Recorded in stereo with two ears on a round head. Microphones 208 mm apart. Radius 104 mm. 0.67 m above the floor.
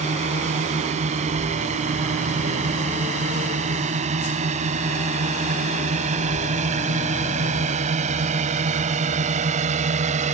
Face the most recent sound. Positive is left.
turn(degrees=-30)  # may be behind; listen again after turning